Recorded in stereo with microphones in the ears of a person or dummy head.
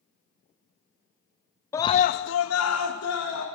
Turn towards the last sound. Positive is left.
turn(degrees=70)  # may be behind; listen again after turning